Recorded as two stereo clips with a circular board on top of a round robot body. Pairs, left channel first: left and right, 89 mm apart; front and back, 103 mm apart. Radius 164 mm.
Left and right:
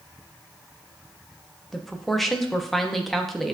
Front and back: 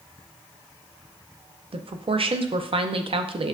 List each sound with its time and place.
1.7 s a woman speaking: 175° left, 0.6 m